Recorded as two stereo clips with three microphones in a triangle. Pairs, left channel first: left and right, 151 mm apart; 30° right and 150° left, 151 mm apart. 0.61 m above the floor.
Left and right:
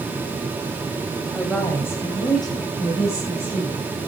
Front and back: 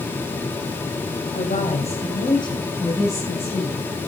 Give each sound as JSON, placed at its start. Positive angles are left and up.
{"t": 1.3, "sound": "a woman speaking", "azimuth_deg": 0, "distance_m": 3.0}